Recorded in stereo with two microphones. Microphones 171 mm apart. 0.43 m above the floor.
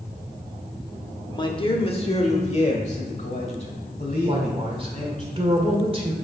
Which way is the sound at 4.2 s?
35° right (ahead or behind).